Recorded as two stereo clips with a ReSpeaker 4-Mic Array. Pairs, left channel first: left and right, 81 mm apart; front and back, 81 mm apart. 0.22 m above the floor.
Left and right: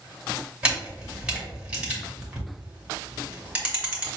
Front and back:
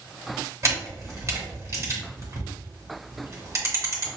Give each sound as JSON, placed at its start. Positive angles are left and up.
{"t": 0.6, "sound": "a camera shutter", "azimuth_deg": -160, "distance_m": 1.7}